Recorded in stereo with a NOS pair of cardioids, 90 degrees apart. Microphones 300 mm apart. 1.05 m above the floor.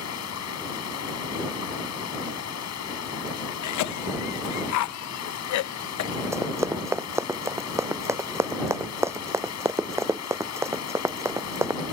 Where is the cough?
65° left.